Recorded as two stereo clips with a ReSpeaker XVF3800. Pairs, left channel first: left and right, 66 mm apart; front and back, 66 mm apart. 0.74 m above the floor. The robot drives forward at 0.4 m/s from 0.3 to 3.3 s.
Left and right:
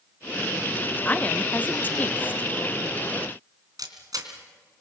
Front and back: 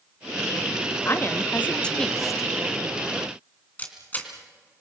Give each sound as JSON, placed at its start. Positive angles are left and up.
{"t": 1.1, "sound": "a woman speaking", "azimuth_deg": 30, "distance_m": 0.8}
{"t": 3.8, "sound": "a camera shutter", "azimuth_deg": -65, "distance_m": 3.0}